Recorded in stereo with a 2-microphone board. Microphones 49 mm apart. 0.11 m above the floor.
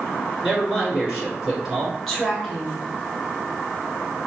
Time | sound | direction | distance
0.4 | a man speaking | 15° right (ahead or behind) | 1.8 m
2.1 | a woman speaking | centre (ahead or behind) | 1.1 m